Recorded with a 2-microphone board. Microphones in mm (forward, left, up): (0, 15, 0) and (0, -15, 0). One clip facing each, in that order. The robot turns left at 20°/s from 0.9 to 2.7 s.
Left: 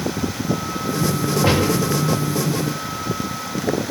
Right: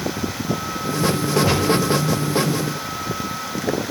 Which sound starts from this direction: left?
A gunshot, at 1.4 s.